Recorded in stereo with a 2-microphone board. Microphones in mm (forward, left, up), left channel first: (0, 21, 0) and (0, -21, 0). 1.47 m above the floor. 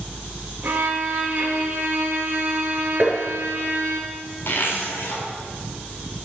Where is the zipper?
65° left (ahead or behind), 3.5 m.